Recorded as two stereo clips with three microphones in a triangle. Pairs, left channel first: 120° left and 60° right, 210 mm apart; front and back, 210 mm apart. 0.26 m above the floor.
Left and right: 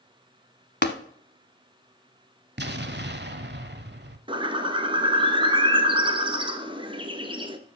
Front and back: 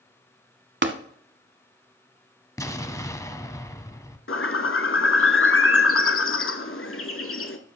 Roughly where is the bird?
Ahead.